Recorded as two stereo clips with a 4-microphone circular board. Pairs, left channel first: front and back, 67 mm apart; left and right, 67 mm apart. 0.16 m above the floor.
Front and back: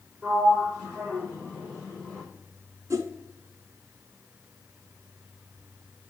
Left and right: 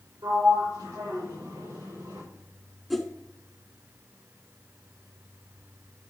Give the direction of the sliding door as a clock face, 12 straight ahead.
3 o'clock.